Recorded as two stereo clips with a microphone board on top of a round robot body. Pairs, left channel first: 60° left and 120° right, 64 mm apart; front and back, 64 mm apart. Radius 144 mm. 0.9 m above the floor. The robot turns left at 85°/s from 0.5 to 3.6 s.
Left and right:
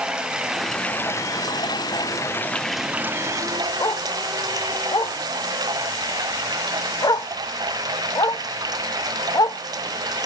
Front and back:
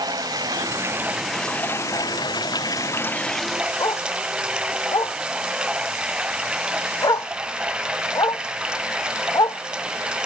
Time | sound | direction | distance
0.0 | running water | 160° left | ?
3.8 | a dog barking | 30° left | ?